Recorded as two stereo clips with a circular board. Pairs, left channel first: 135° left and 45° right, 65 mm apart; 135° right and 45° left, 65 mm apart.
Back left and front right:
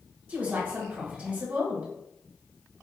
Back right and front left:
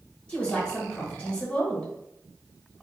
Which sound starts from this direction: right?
A woman speaking, at 0.3 s.